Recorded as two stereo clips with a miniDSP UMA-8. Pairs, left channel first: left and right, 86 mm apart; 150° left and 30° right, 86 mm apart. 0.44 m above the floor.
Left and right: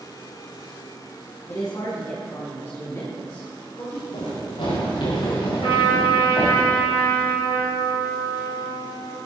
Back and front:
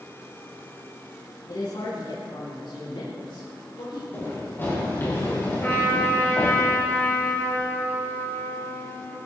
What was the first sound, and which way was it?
A woman speaking, 130° left.